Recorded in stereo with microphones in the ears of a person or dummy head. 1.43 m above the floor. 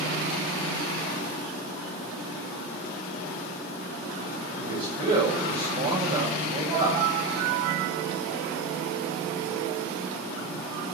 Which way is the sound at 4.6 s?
30° right (ahead or behind).